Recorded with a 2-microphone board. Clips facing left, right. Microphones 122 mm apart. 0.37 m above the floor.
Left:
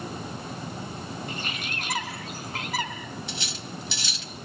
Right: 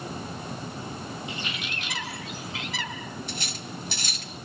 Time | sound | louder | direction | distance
1.3 | a bird | left 1 dB | 50° left (ahead or behind) | 3.5 m
3.3 | cutlery clinking | even | 50° right (ahead or behind) | 1.3 m